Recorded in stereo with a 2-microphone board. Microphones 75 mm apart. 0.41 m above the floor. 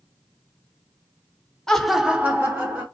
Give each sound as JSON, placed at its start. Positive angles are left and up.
{"t": 1.7, "sound": "laughter", "side_deg": 10, "distance_m": 1.0}